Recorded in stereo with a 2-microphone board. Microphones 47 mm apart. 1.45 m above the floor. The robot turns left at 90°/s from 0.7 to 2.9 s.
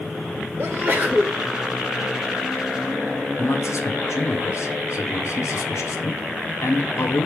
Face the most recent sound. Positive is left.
turn(degrees=70)  # may be behind; listen again after turning